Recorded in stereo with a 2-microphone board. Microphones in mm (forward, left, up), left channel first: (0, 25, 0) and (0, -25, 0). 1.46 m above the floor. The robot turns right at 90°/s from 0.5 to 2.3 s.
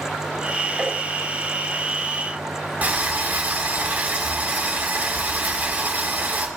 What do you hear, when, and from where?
0.8 s tapping: 20° right (ahead or behind), 4.5 m; by 1.0 s 5° right (ahead or behind), 4.5 m
2.8 s boiling: 35° right (ahead or behind), 3 m